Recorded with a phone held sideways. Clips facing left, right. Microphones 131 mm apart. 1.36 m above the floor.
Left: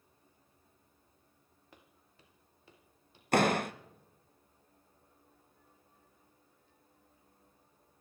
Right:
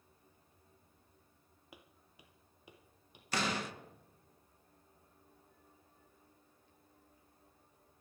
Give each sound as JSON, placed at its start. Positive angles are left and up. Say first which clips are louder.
{"t": 1.7, "sound": "footsteps", "louder": "right 2 dB", "side_deg": -10, "distance_m": 2.5}
{"t": 3.3, "sound": "a door slam", "louder": "left 9 dB", "side_deg": 60, "distance_m": 1.0}